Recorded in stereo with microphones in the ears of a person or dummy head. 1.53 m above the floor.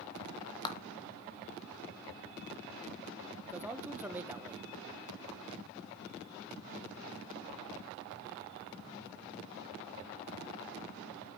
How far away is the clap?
About 1.4 m.